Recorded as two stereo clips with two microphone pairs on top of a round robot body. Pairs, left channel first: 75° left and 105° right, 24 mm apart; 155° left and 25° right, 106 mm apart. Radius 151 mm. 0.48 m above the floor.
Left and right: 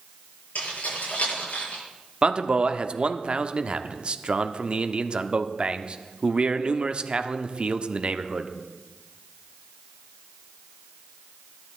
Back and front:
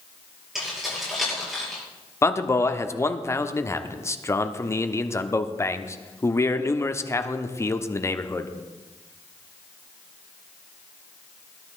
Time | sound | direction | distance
0.6 | keys jangling | 60° left | 8.5 m
2.2 | a man speaking | 150° right | 1.3 m